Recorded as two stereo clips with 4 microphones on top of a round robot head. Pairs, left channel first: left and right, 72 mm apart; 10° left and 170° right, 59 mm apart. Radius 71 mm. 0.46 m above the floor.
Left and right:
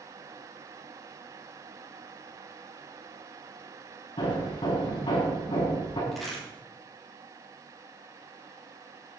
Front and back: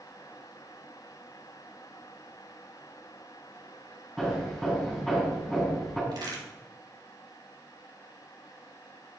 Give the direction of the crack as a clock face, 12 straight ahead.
6 o'clock.